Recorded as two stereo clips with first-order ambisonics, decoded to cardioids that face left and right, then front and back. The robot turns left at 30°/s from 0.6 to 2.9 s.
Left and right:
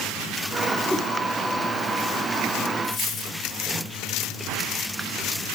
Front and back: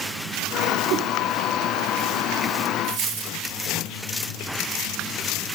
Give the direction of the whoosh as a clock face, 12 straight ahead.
6 o'clock.